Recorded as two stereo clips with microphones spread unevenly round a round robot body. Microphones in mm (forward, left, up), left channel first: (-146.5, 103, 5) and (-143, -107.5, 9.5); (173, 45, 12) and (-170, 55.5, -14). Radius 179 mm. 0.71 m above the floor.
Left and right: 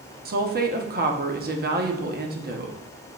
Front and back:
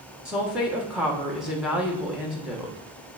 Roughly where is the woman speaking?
Right.